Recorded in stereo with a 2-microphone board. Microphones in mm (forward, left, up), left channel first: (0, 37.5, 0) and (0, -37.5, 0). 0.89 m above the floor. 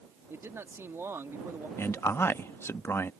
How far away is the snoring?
No snoring in this recording.